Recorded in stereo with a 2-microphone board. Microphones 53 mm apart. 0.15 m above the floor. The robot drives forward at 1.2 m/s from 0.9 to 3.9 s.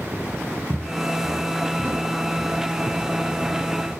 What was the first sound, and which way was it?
Footsteps, 20° right (ahead or behind).